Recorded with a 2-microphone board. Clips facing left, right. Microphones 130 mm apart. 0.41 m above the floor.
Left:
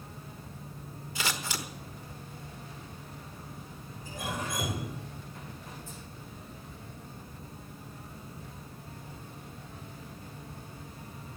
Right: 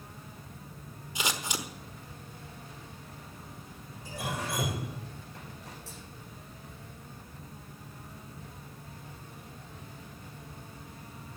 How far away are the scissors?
About 1.3 m.